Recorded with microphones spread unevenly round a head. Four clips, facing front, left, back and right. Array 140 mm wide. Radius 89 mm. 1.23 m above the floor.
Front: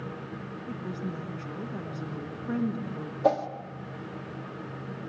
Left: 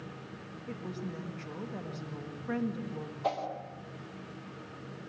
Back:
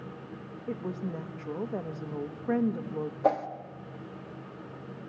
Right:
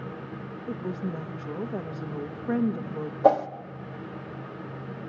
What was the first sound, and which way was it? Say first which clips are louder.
A woman speaking: right 7 dB, back 2 dB; 140° right.